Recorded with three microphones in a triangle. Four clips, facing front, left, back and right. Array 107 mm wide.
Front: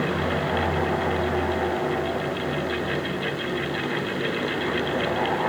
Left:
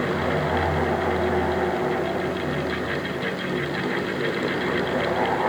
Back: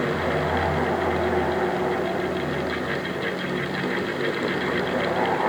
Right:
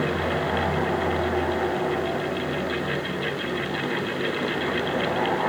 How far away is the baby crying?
No baby crying in this recording.